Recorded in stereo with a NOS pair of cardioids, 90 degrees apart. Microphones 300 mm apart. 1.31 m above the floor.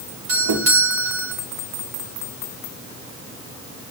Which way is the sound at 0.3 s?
70° right.